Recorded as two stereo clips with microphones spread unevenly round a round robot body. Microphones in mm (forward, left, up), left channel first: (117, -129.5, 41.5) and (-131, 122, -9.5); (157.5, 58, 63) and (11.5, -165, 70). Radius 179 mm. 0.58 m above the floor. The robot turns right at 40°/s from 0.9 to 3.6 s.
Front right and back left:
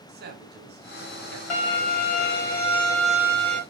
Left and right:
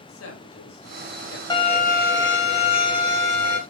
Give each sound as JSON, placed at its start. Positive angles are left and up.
{"t": 0.1, "sound": "a man speaking", "azimuth_deg": 80, "distance_m": 2.5}
{"t": 1.5, "sound": "a violin", "azimuth_deg": -20, "distance_m": 2.5}